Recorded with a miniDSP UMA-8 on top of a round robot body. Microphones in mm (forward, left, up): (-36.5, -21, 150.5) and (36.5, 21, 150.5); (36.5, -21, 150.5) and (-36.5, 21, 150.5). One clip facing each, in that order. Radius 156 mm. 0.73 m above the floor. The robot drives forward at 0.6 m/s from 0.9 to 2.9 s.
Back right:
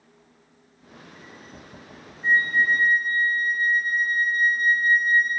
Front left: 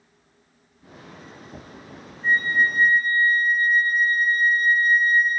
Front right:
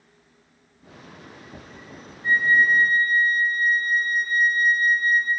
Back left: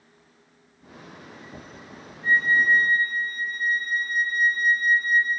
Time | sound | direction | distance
2.2 | a flute | 155° left | 2.5 m